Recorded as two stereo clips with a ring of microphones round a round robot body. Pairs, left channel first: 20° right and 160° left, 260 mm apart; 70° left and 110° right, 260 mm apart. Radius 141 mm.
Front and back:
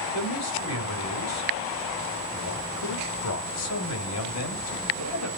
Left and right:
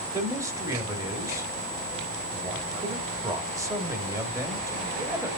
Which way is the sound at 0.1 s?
35° right.